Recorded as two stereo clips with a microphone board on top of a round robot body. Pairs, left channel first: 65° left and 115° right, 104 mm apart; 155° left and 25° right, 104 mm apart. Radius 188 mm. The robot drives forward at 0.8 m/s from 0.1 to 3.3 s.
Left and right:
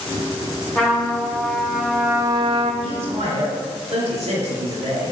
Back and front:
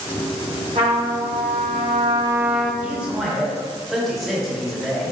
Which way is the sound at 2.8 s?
95° right.